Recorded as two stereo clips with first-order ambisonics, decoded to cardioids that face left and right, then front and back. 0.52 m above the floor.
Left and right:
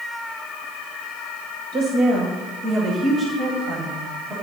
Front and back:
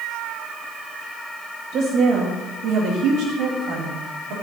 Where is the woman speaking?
135° right, 1.9 m; by 4.3 s 165° right, 3 m.